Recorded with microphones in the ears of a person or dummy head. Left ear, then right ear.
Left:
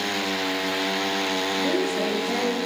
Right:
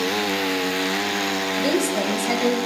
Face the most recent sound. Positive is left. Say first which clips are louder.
# right 2 dB
turn(degrees=-90)